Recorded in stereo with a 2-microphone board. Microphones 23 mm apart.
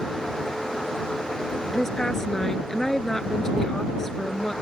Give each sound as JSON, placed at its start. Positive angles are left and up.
{"t": 1.7, "sound": "a woman speaking", "side_deg": 20}